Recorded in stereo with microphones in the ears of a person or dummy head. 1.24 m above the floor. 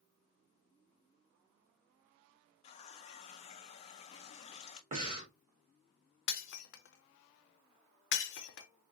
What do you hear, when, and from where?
2.6 s a running tap: 40° left (ahead or behind), 0.5 m
4.9 s breathing: 30° right (ahead or behind), 1.0 m
6.3 s breaking glass: 70° left (ahead or behind), 0.7 m